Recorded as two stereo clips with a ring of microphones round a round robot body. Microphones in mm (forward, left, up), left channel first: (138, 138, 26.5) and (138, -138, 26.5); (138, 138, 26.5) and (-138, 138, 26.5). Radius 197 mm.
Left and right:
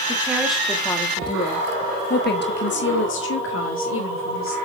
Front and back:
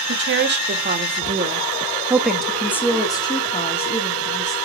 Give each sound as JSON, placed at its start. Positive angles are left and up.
{"t": 0.1, "sound": "a woman speaking", "azimuth_deg": -170, "distance_m": 1.6}